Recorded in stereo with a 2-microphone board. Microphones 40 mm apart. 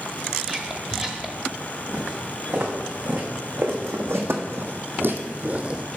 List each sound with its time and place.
0.4 s whispering: 15° right (ahead or behind), 0.9 m
1.9 s footsteps: 70° right (ahead or behind), 2.5 m; by 5.9 s 25° right (ahead or behind), 0.8 m